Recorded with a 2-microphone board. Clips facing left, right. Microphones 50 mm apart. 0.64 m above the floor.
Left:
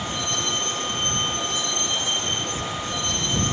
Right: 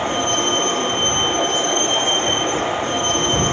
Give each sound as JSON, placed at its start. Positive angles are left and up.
{"t": 0.0, "sound": "a vehicle", "side_deg": -50}